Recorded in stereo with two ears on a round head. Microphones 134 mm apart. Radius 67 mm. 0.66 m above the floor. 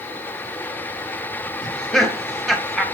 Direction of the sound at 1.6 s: Centre (ahead or behind).